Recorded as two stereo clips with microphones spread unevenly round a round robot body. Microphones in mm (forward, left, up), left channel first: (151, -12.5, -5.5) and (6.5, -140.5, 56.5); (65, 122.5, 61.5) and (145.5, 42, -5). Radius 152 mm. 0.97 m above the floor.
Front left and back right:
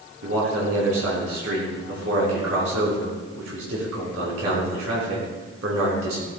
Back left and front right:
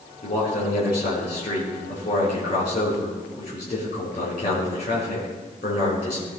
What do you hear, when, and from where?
0.2 s a man speaking: straight behind, 4 m